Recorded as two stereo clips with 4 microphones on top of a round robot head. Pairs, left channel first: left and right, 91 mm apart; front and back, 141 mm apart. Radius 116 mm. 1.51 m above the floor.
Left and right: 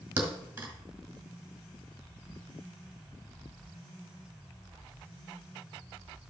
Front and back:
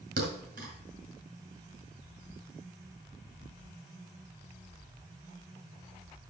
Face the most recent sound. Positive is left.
turn(degrees=-150)